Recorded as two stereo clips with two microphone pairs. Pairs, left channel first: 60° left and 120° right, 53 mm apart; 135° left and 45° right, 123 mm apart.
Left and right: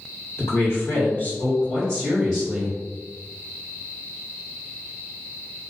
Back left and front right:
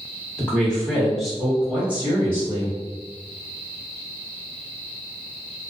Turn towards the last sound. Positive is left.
turn(degrees=-70)